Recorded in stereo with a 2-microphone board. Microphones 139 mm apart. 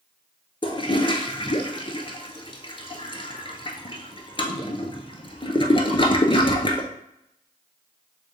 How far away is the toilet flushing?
About 0.6 m.